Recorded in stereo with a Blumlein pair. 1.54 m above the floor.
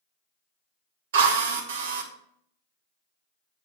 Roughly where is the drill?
Ahead right.